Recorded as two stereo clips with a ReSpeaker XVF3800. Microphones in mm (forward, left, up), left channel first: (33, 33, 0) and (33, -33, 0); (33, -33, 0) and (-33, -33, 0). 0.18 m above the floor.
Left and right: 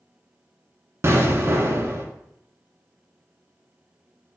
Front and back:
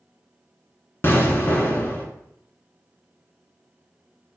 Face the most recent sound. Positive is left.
turn(degrees=-45)